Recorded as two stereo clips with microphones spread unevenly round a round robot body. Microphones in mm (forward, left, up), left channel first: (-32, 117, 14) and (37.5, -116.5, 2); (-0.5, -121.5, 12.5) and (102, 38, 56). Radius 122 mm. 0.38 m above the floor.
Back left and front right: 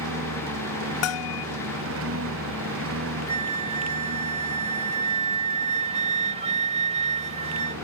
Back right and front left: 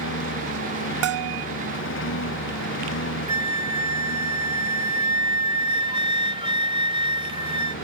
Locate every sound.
0.0 s a lawn mower: 110° right
1.0 s a bell: 80° left
3.3 s a flute: 10° right